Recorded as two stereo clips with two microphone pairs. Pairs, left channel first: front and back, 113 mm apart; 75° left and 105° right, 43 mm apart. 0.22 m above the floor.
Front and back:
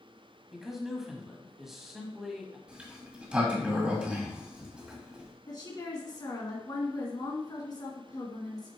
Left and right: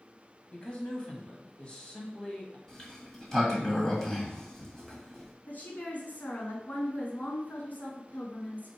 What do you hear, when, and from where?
0.5 s a man speaking: 100° left, 1.4 m
2.7 s a sliding door: 125° left, 1.5 m
5.5 s a woman speaking: 40° left, 2 m